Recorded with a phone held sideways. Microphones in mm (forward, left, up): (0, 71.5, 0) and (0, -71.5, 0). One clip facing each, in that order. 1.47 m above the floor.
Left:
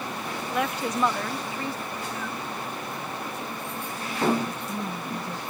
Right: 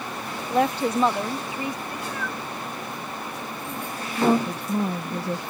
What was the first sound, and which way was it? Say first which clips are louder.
A woman speaking: right 7 dB; 35° right (ahead or behind).